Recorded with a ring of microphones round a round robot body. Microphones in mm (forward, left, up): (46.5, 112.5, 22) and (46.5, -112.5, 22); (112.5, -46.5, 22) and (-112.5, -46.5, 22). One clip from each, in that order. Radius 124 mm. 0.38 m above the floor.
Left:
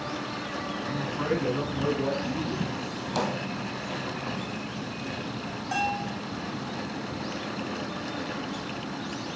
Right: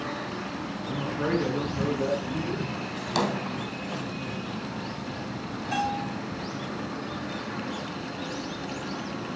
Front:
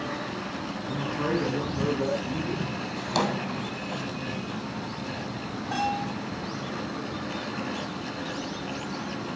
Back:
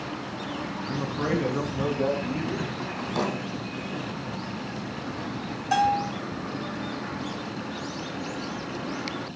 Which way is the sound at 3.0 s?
15° right.